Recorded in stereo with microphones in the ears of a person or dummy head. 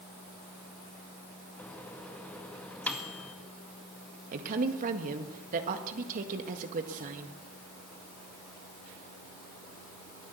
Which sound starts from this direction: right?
A woman speaking, at 4.3 s.